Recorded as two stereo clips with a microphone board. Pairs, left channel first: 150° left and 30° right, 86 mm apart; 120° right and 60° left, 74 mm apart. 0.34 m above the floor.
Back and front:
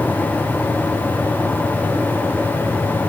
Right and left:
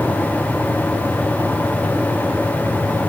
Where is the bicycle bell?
I don't hear a bicycle bell.